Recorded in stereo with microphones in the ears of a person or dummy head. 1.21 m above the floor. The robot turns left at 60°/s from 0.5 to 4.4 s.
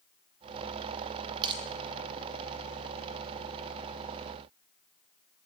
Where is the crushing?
30° right (ahead or behind), 0.7 m; by 1.6 s 35° right (ahead or behind), 0.7 m.